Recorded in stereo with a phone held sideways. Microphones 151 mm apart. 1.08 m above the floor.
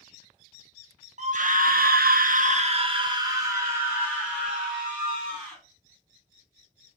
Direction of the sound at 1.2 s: 50° right (ahead or behind).